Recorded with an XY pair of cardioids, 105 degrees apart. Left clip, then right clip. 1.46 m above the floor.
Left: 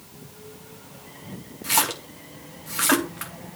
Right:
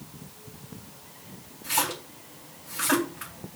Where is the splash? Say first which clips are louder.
Left 4 dB; 65° left, 2.5 m.